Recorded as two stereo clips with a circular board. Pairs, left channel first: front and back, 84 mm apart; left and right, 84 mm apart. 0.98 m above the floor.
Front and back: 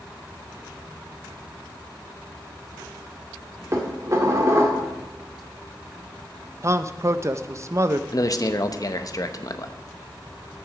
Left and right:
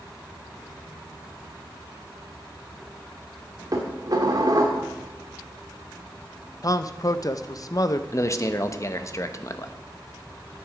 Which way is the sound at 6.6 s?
130° left.